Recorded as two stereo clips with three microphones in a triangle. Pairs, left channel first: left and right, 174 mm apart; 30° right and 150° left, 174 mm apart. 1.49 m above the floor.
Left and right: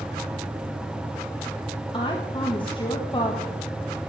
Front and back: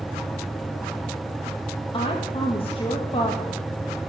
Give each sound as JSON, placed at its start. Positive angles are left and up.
{"t": 1.9, "sound": "a woman speaking", "azimuth_deg": 25, "distance_m": 1.6}